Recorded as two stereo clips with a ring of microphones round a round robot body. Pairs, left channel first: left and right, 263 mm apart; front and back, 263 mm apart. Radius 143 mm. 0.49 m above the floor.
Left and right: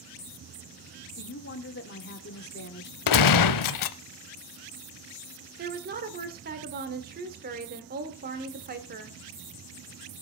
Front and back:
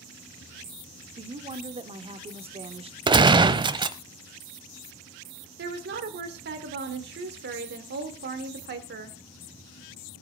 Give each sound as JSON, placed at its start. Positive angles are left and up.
{"t": 1.2, "sound": "a woman speaking", "azimuth_deg": 120, "distance_m": 1.2}
{"t": 3.1, "sound": "a gunshot", "azimuth_deg": 105, "distance_m": 0.6}
{"t": 5.6, "sound": "a woman speaking", "azimuth_deg": -140, "distance_m": 1.5}